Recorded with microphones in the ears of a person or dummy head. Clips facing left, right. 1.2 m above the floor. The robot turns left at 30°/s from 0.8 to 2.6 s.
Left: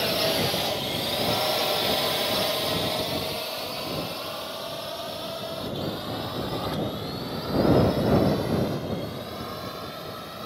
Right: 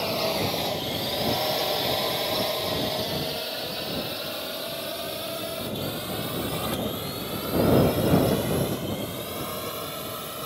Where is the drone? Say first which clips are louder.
Left 1 dB; 20° left (ahead or behind); by 10.5 s 40° right (ahead or behind).